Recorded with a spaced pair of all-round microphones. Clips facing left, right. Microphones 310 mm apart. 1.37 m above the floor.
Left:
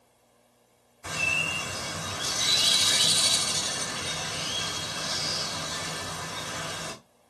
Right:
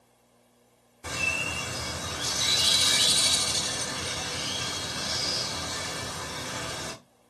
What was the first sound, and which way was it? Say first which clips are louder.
A bird: right 1 dB; 40° right (ahead or behind).